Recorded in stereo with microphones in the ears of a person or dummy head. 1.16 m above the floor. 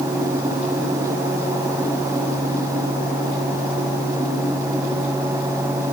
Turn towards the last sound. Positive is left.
No sound to turn to.